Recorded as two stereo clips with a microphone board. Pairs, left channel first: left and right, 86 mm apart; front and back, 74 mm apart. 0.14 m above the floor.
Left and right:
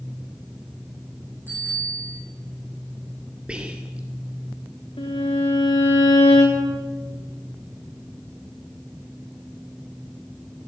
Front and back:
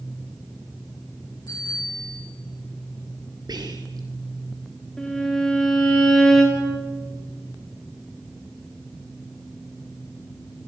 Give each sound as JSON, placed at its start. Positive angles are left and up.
{"t": 1.5, "sound": "a bicycle bell", "azimuth_deg": -25, "distance_m": 7.5}
{"t": 3.5, "sound": "whispering", "azimuth_deg": -170, "distance_m": 2.5}
{"t": 5.0, "sound": "a violin", "azimuth_deg": 80, "distance_m": 5.0}